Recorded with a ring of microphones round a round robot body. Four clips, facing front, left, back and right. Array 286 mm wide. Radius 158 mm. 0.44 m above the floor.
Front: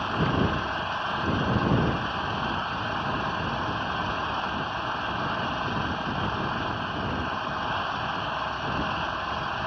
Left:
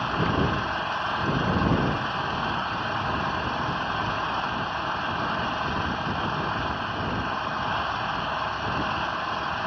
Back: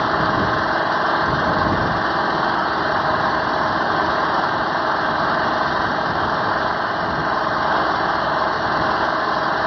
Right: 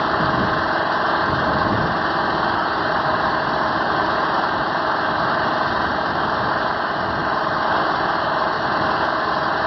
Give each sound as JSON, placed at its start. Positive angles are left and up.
{"t": 0.0, "sound": "an engine running", "azimuth_deg": -135}